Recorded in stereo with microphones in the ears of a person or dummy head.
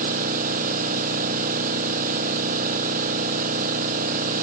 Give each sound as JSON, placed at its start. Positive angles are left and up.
{"t": 0.0, "sound": "an engine running", "side_deg": -50}